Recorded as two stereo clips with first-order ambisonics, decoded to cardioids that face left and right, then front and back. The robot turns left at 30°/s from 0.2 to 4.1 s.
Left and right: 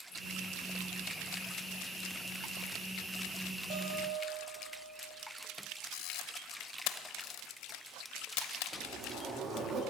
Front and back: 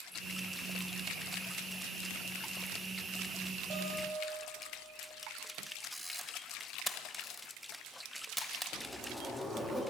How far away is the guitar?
About 3.5 m.